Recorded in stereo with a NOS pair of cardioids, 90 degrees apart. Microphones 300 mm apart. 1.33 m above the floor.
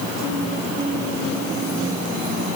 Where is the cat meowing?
I don't hear a cat meowing.